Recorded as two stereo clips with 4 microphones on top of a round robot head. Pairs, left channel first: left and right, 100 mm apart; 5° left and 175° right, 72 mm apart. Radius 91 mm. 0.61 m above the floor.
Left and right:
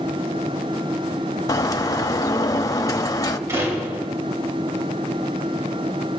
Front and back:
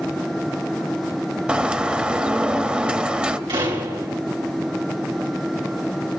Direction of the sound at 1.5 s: 120° left.